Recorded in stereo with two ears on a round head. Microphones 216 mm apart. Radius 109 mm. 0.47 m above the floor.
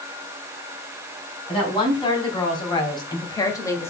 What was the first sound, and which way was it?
A woman speaking, 20° left (ahead or behind).